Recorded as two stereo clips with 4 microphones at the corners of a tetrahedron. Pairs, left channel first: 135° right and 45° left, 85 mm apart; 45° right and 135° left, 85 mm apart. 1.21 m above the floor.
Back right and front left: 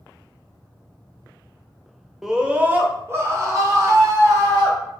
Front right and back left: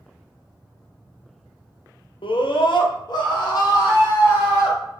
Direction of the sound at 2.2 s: 40° right.